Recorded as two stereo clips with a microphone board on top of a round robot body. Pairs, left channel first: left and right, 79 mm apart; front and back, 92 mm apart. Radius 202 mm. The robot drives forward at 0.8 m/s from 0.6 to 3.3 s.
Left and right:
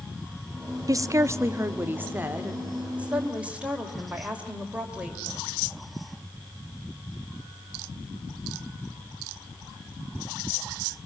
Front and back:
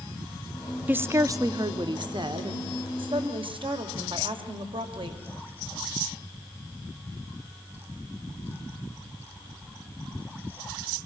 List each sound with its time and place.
0.9 s a woman speaking: 115° right, 0.9 m; by 5.2 s 165° right, 2.5 m